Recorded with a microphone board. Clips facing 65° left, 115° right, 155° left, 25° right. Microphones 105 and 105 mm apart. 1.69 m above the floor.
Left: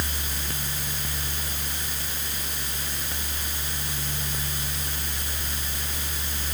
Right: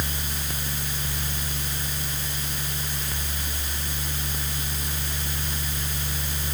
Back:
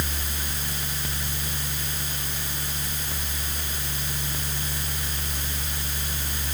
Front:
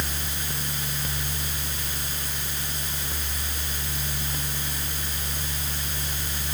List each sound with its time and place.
Only background noise.